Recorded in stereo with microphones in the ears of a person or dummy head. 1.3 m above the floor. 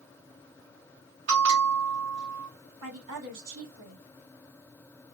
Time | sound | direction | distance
1.3 | a bell | 80° right | 2 m
2.8 | a woman speaking | 85° right | 2.5 m